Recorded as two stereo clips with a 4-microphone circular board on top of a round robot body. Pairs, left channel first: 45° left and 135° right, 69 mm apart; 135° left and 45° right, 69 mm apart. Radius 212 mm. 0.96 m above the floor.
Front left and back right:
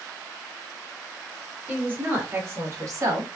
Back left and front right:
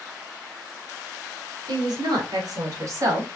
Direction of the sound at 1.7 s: 70° right.